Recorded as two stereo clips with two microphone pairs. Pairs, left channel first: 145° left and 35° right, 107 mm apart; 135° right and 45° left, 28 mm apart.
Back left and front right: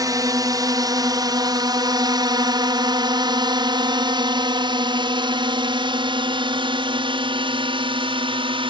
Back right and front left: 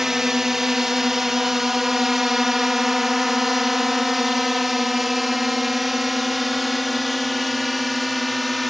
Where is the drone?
25° right; by 8.7 s 45° right.